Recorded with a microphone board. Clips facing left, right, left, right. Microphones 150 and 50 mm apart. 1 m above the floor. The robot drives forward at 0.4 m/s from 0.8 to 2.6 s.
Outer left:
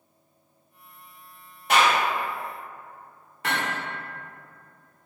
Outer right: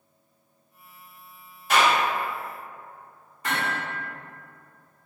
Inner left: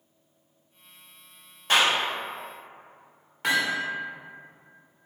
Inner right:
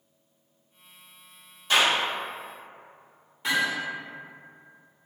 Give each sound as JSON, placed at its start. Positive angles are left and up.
{"t": 1.7, "sound": "a clap", "side_deg": 65, "distance_m": 1.8}
{"t": 3.4, "sound": "hammering", "side_deg": 75, "distance_m": 0.9}